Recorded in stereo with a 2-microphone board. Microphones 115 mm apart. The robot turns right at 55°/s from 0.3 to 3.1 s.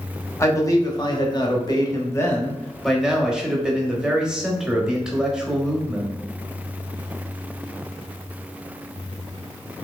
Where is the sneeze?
No sneeze in this recording.